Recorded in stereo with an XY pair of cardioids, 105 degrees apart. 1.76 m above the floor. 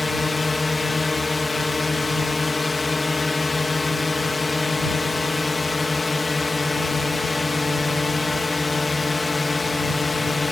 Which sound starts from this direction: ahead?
A drone, at 0.0 s.